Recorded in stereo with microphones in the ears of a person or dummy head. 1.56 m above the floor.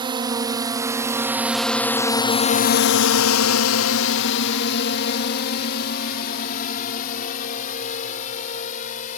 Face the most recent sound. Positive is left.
turn(degrees=45)  # may be behind; listen again after turning